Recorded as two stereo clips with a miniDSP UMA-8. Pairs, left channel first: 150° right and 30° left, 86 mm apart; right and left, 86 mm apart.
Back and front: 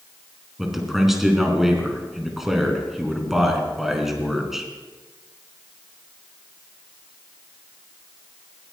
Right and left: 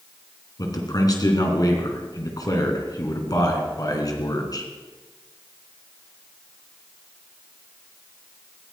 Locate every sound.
0.6 s a man speaking: 55° right, 3.5 m